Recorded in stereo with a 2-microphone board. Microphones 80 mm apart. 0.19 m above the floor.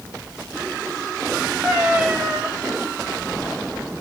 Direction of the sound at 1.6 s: 20° right (ahead or behind).